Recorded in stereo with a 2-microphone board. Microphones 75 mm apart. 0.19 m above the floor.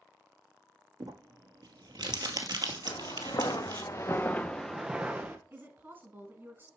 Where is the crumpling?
75° right (ahead or behind), 1.2 m.